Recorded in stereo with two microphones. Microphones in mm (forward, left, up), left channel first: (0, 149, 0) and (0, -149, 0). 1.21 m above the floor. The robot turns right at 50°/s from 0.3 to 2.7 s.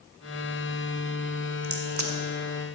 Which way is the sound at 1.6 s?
65° right (ahead or behind).